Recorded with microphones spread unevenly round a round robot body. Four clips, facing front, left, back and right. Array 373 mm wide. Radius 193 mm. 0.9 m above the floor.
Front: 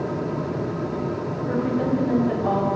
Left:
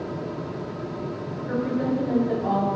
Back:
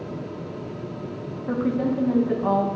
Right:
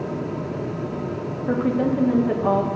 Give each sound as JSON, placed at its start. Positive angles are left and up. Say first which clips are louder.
{"t": 1.5, "sound": "a woman speaking", "louder": "right 4 dB, even", "azimuth_deg": -105, "distance_m": 1.4}